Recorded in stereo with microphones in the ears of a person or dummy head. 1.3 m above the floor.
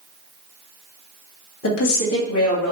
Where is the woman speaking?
80° left, 1.5 m.